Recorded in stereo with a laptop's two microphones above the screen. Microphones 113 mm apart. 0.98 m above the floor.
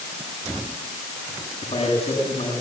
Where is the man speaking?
65° left (ahead or behind), 9.5 m.